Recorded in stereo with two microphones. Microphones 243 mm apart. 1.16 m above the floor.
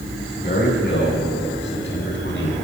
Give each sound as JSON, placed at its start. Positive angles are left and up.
{"t": 0.4, "sound": "a man speaking", "side_deg": 45, "distance_m": 8.5}